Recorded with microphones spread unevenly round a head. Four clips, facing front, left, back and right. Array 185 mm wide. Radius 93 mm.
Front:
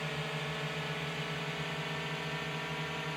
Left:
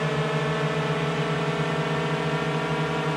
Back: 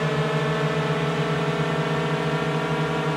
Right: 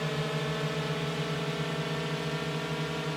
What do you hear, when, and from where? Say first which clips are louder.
0.0 s a drone: left 7 dB, back 15 dB; 155° left; by 3.2 s 150° left